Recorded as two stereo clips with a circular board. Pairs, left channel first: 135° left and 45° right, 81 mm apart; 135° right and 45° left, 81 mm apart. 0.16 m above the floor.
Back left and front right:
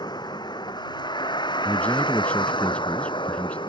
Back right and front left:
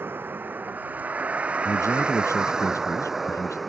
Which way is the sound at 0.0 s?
110° left.